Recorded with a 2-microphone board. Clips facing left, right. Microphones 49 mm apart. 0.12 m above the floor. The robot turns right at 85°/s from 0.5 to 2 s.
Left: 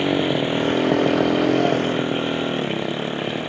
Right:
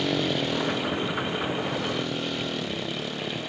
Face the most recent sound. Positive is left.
turn(degrees=150)